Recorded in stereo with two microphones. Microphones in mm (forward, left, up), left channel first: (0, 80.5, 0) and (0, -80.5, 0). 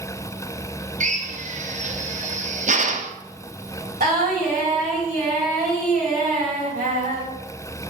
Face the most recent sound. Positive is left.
turn(degrees=-80)